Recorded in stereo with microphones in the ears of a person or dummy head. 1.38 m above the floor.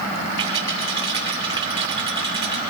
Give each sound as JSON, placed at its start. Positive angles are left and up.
{"t": 0.4, "sound": "a rattle", "side_deg": -30, "distance_m": 2.5}